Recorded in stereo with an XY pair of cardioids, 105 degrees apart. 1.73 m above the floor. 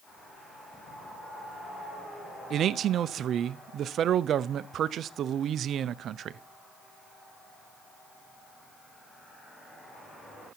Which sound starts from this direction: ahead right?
A man speaking, at 2.5 s.